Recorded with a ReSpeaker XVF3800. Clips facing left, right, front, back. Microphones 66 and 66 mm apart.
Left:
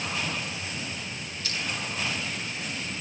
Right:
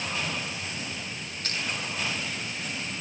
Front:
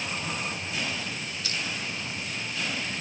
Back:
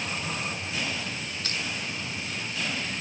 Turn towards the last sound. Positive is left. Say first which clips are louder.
# right 1 dB, even
turn(degrees=-135)